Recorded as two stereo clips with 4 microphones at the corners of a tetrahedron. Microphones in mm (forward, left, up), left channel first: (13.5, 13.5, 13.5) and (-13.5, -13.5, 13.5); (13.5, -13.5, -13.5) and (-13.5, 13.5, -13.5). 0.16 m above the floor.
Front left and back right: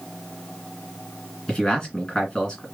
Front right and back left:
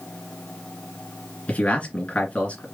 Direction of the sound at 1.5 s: 15° right.